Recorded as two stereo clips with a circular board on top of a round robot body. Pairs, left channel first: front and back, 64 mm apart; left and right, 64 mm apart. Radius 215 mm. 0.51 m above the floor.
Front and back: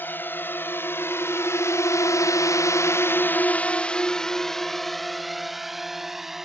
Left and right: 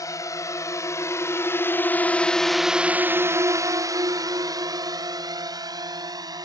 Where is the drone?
60° left; by 6.5 s 95° right.